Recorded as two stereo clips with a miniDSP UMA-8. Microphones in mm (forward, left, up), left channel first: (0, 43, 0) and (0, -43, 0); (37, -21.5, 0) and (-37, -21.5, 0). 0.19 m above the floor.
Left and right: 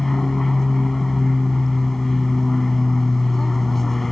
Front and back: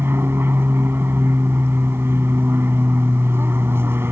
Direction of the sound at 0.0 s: 175° left.